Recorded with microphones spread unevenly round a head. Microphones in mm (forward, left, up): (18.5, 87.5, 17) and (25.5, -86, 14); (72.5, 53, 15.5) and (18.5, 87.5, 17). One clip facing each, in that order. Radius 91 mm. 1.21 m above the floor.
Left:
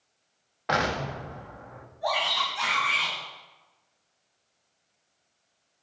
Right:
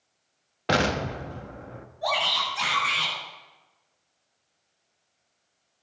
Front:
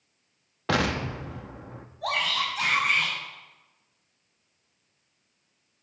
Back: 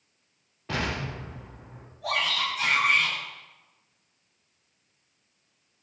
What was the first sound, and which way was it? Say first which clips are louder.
An explosion: right 3 dB, front 5 dB; 35° right.